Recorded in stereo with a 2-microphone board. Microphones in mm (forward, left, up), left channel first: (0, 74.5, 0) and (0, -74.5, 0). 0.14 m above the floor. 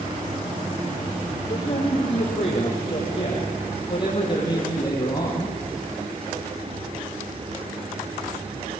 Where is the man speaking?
45° left (ahead or behind), 5 m; by 5.6 s 20° left (ahead or behind), 5 m.